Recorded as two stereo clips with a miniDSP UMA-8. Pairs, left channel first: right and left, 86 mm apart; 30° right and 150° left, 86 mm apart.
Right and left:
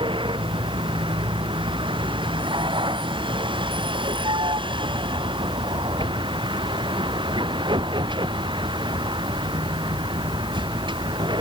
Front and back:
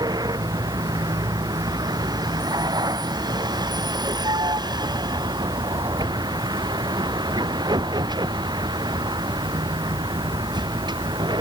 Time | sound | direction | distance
0.0 | a vehicle | 110° left | ?